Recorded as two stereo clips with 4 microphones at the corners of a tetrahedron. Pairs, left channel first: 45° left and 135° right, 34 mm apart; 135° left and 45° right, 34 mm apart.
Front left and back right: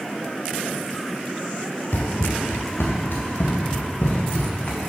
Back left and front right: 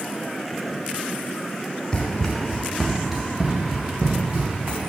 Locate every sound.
1.9 s running footsteps: 65° left, 1.8 m; by 4.8 s 5° right, 2.5 m